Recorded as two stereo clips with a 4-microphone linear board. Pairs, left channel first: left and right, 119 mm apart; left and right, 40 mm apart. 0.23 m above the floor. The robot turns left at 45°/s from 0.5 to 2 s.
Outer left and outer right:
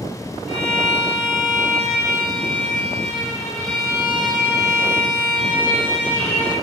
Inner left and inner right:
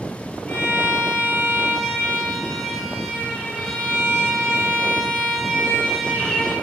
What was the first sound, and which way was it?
A violin, 85° left.